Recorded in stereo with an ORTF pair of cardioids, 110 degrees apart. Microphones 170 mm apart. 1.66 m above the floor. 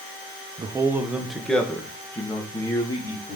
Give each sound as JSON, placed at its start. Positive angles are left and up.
{"t": 0.6, "sound": "a man speaking", "azimuth_deg": -25, "distance_m": 1.3}